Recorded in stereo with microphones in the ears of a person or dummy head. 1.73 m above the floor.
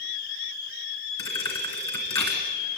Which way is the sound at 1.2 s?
25° left (ahead or behind).